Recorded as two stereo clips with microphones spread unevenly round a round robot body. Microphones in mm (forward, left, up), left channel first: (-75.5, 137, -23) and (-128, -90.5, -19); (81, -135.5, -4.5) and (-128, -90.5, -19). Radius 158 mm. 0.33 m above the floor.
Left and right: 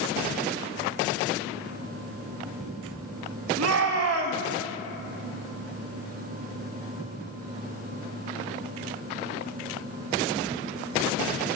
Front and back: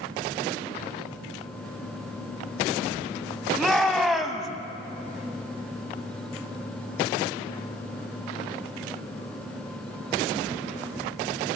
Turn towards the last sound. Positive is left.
turn(degrees=-105)